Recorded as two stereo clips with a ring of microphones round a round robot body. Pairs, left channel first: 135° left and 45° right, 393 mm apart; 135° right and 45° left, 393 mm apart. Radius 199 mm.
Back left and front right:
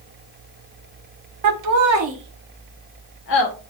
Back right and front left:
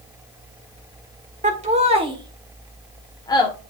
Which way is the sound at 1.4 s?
25° right.